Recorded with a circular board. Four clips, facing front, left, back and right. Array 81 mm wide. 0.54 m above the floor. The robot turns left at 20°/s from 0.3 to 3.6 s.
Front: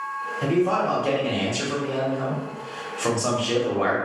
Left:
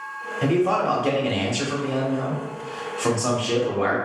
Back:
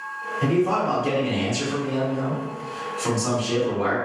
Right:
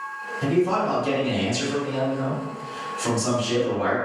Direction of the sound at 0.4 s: 95° left.